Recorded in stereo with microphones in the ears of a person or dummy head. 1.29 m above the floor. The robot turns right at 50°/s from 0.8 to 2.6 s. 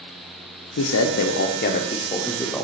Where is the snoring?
I don't hear snoring.